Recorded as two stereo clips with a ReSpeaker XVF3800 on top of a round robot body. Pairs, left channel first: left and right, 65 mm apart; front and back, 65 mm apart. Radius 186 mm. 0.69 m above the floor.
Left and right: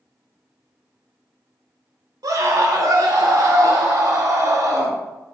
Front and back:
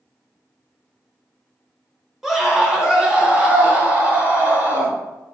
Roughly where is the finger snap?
I don't hear a finger snap.